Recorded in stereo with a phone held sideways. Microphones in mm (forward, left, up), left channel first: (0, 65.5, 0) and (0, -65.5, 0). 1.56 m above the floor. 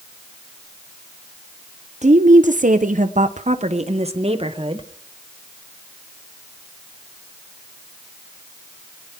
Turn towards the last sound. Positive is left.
turn(degrees=-40)  # may be behind; listen again after turning